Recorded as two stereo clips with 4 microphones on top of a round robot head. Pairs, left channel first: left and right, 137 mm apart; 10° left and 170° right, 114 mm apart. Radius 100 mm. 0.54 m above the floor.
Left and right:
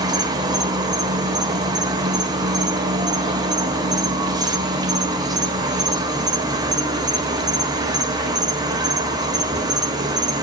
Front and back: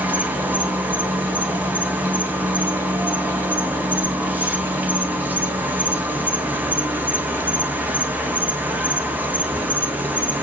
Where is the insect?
110° right, 1.3 m.